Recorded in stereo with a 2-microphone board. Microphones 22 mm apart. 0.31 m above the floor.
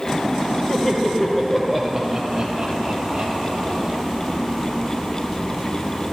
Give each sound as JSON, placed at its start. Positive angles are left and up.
{"t": 0.7, "sound": "laughter", "side_deg": 30, "distance_m": 1.2}